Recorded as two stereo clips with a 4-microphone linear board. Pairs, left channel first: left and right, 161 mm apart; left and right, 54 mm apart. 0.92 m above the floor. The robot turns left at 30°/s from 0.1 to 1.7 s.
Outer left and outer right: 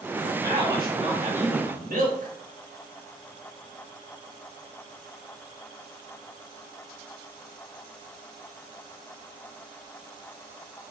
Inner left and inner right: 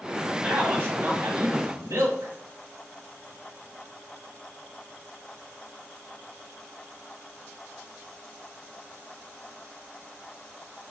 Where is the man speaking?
25° right, 3.5 m; by 2.3 s 60° right, 3.5 m.